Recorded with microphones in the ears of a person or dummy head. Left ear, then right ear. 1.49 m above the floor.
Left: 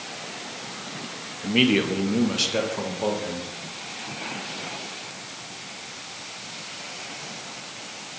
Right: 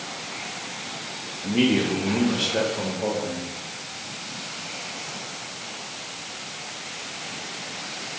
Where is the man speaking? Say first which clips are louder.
Left 2 dB; 80° left, 1.0 m; by 3.5 s 85° left, 2 m.